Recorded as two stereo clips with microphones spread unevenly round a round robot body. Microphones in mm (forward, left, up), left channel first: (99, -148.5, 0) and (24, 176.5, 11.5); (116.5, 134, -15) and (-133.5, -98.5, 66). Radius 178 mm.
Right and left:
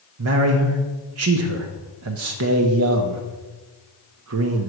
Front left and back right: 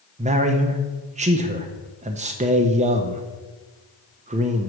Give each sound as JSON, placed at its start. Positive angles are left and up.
{"t": 0.2, "sound": "a man speaking", "azimuth_deg": 145, "distance_m": 0.6}